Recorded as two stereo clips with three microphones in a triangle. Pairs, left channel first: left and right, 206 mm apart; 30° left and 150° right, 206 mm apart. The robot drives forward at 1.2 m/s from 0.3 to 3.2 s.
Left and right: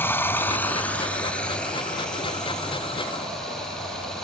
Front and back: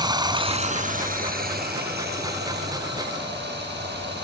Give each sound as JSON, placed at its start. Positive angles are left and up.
{"t": 0.0, "sound": "running water", "azimuth_deg": 160, "distance_m": 0.9}